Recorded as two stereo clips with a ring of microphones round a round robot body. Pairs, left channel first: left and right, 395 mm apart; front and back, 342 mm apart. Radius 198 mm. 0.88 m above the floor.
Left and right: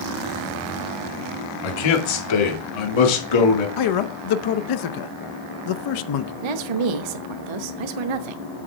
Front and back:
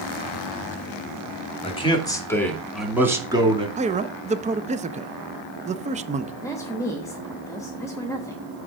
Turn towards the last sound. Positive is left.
turn(degrees=-80)